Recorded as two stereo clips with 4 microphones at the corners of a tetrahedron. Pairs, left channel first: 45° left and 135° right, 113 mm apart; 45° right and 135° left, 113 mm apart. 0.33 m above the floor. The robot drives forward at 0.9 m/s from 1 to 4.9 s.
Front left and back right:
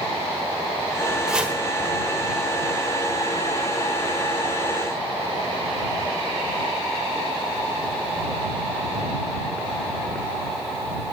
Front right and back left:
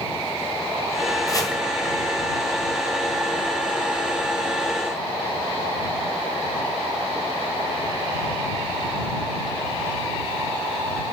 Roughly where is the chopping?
Ahead right.